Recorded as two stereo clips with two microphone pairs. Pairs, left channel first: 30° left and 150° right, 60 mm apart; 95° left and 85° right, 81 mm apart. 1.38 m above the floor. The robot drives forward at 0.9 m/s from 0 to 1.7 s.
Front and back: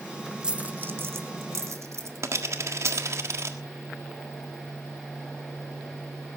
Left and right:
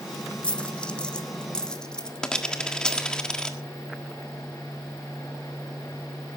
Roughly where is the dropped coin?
Behind.